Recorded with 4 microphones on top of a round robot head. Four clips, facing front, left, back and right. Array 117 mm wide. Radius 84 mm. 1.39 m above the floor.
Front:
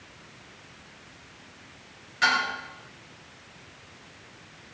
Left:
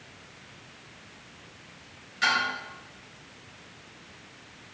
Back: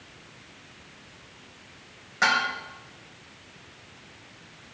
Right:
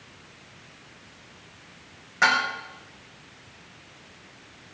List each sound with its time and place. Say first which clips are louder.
2.2 s dishes clattering: right 4 dB, back 1 dB; 130° right, 5 m